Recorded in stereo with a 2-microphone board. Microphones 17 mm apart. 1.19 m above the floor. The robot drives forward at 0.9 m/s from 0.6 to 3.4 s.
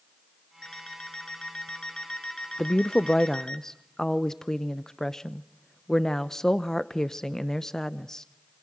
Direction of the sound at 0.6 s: 45° left (ahead or behind).